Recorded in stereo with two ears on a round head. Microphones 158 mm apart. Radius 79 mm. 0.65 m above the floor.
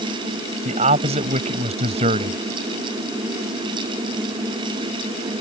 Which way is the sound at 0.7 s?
40° right (ahead or behind).